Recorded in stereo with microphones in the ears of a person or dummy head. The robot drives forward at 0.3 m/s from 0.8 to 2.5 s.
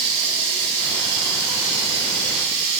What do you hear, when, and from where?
0.0 s running water: 60° right (ahead or behind), 4 m; by 2.8 s 65° right (ahead or behind), 4 m